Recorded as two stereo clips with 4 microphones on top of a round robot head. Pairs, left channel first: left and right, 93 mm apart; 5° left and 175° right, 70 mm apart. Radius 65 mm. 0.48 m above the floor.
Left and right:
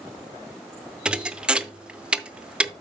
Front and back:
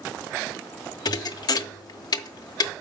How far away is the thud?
About 0.6 m.